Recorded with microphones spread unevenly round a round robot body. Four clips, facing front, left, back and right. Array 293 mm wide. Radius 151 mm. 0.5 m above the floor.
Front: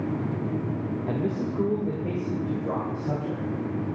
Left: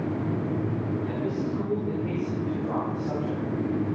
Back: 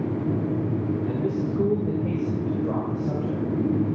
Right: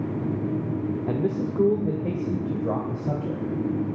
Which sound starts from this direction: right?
A man speaking, at 1.1 s.